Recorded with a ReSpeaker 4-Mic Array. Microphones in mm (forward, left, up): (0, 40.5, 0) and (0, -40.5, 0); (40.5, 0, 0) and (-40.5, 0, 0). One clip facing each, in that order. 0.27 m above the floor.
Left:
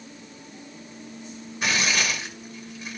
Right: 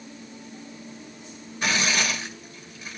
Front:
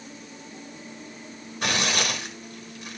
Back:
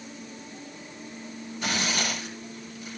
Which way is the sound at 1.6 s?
5° left.